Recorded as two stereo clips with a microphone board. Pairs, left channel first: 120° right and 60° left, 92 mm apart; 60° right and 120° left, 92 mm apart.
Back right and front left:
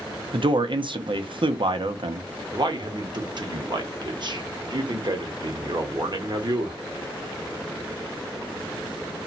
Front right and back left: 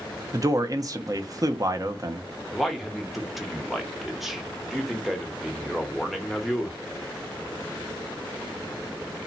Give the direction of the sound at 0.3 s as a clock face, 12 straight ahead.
10 o'clock.